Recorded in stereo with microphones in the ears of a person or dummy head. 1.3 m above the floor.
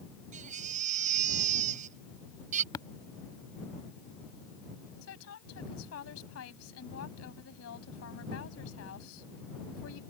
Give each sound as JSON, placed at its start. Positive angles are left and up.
{"t": 0.3, "sound": "a baby crying", "side_deg": -45}
{"t": 2.7, "sound": "tapping", "side_deg": 20}
{"t": 5.0, "sound": "a woman speaking", "side_deg": 80}